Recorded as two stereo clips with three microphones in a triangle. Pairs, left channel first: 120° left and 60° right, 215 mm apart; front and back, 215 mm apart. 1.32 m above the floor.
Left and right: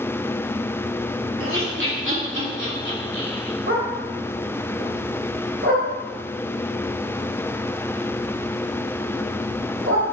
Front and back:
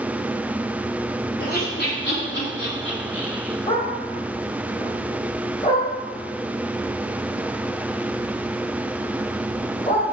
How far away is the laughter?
About 3 m.